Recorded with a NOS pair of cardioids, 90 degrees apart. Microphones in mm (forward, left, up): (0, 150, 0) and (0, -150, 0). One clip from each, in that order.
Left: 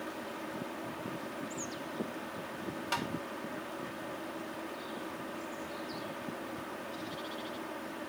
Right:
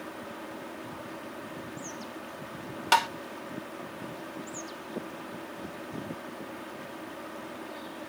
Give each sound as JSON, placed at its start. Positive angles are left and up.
{"t": 0.0, "sound": "a fan", "azimuth_deg": 0}
{"t": 2.9, "sound": "tapping", "azimuth_deg": -70}